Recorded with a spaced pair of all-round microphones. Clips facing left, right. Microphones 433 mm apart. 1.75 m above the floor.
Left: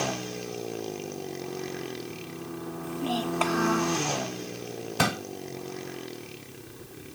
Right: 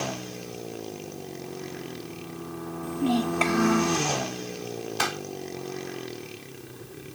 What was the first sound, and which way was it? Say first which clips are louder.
A child speaking: right 6 dB; 40° right (ahead or behind).